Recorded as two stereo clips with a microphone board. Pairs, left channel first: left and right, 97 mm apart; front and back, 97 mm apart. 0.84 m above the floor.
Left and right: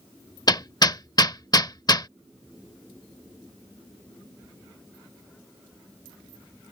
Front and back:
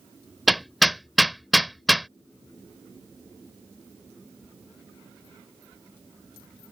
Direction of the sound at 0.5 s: 90° left.